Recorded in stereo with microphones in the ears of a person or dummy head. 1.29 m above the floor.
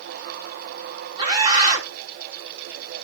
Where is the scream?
30° right (ahead or behind), 3 m.